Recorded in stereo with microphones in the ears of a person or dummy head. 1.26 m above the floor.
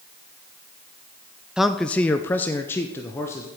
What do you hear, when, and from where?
1.6 s a man speaking: centre (ahead or behind), 0.5 m; by 3.5 s 20° left (ahead or behind), 1.4 m